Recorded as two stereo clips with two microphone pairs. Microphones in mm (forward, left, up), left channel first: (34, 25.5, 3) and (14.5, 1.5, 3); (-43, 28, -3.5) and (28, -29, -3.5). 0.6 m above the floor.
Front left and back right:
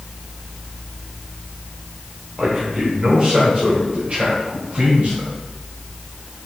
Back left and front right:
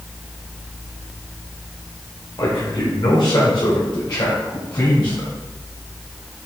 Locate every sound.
2.4 s a man speaking: 155° left, 1.6 m; by 5.3 s straight behind, 3 m